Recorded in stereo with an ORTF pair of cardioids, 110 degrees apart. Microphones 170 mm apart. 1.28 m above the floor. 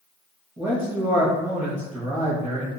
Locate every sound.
0.6 s a man speaking: 20° right, 1.1 m